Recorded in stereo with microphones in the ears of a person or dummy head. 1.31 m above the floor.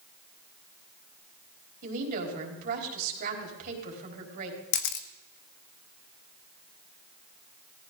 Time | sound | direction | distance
1.8 | a woman speaking | 55° right (ahead or behind) | 4 m
4.7 | a camera shutter | 55° left (ahead or behind) | 0.9 m